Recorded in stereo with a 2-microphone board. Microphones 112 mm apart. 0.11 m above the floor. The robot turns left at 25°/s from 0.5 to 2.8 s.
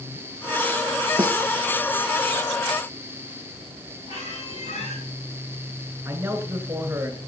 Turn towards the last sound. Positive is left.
turn(degrees=-20)  # may be behind; listen again after turning